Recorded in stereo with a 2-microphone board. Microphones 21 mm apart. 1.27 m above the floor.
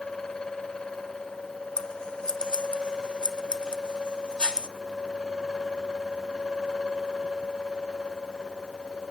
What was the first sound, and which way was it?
Scissors, 45° left (ahead or behind).